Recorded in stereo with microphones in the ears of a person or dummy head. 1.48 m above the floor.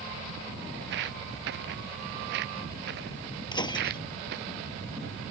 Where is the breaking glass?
20° left (ahead or behind).